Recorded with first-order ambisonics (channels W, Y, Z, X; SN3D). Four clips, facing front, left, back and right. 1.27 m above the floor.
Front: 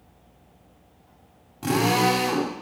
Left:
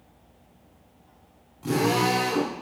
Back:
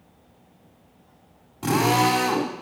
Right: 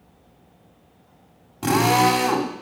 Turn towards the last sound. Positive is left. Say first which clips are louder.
# right 6 dB, back 1 dB
turn(degrees=-90)